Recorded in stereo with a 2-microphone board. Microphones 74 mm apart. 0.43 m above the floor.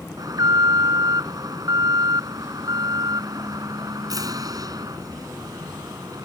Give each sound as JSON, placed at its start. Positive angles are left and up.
{"t": 0.2, "sound": "an alarm", "side_deg": -55}